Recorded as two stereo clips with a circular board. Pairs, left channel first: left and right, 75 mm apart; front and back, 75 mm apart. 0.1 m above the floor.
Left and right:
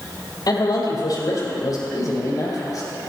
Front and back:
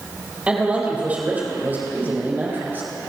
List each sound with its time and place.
0.5 s a man speaking: 105° left, 4 m; by 2.9 s 120° left, 4.5 m